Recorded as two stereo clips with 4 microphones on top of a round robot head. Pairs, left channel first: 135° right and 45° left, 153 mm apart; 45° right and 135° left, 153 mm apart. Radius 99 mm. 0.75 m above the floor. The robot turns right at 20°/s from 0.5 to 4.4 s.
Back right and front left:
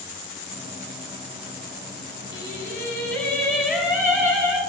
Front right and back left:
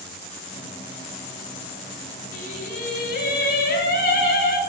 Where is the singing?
65° right, 9.5 m; by 4.6 s 25° right, 9.5 m.